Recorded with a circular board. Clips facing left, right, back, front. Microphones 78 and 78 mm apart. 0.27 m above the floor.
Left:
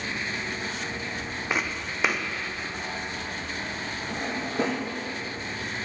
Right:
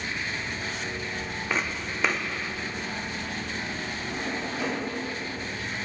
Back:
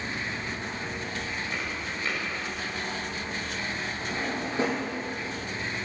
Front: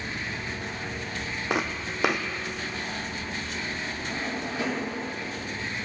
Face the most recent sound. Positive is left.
turn(degrees=125)